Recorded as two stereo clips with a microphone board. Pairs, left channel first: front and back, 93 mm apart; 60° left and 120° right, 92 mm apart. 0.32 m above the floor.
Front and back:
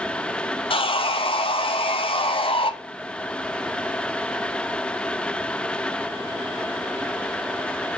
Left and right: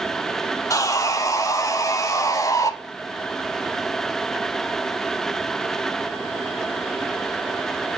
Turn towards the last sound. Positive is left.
turn(degrees=10)